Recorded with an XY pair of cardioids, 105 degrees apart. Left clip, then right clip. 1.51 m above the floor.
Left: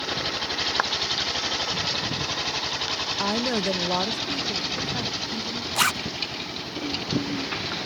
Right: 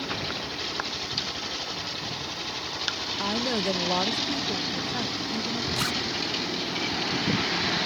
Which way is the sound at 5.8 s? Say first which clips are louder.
Left 8 dB; 60° left.